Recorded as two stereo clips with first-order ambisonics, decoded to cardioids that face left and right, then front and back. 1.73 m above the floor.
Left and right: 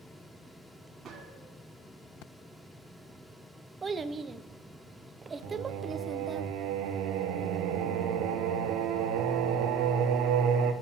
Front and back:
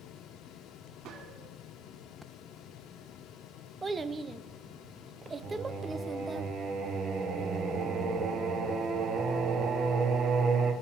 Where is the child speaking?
130° right, 0.6 m.